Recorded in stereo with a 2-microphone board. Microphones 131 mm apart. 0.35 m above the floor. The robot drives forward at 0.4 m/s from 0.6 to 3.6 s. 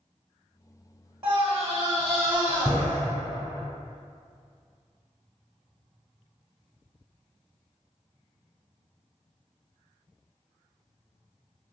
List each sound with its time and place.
1.2 s a scream: 20° right (ahead or behind), 1.0 m; by 3.0 s 15° right (ahead or behind), 1.5 m